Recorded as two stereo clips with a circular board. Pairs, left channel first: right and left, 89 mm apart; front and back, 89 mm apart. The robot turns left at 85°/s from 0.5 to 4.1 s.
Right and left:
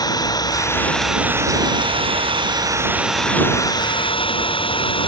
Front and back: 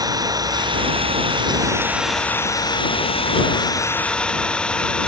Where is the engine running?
130° right; by 5.1 s 80° right.